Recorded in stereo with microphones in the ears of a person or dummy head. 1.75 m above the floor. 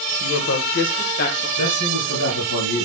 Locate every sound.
0.2 s a woman speaking: 60° left (ahead or behind), 1.3 m; by 1.5 s 45° left (ahead or behind), 1.8 m
1.6 s a man speaking: 80° left, 4.5 m